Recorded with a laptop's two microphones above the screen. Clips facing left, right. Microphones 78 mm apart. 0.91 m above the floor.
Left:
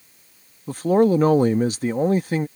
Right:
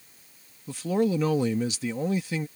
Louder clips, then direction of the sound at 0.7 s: Left 8 dB; 45° left (ahead or behind).